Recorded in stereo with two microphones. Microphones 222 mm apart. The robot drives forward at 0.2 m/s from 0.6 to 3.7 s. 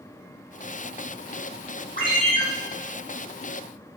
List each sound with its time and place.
2.0 s a ringtone: 40° left (ahead or behind), 1.9 m; by 2.4 s 35° left (ahead or behind), 2.0 m